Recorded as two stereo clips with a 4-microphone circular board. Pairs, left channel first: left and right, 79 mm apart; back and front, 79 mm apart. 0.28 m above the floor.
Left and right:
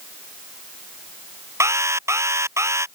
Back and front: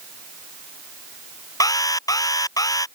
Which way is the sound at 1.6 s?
145° right.